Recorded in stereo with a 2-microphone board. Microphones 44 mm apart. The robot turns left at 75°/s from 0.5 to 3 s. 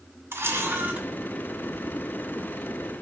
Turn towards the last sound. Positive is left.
turn(degrees=75)